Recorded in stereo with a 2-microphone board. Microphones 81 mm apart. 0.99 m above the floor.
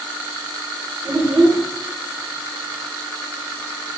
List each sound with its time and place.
1.1 s a child speaking: 45° right (ahead or behind), 0.7 m